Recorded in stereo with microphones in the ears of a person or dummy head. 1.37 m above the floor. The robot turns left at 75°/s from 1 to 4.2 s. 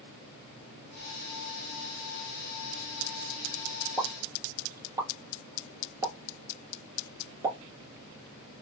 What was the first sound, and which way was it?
A pop, centre (ahead or behind).